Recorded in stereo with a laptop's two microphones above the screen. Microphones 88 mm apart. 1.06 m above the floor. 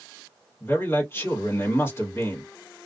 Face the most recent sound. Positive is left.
turn(degrees=30)  # may be behind; listen again after turning